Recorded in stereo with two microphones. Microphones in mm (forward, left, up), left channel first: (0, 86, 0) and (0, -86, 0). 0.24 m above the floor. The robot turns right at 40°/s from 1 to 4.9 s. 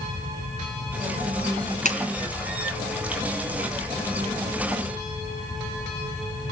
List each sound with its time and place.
1.9 s a clap: 45° left (ahead or behind), 2.5 m; by 2.0 s 40° left (ahead or behind), 2.5 m